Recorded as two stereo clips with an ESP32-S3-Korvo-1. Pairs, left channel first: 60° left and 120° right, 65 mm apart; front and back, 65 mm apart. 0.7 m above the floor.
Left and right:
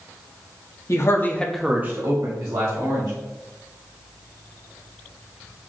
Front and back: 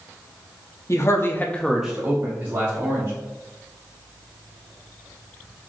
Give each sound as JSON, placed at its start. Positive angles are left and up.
{"t": 0.9, "sound": "a man speaking", "azimuth_deg": 30, "distance_m": 0.9}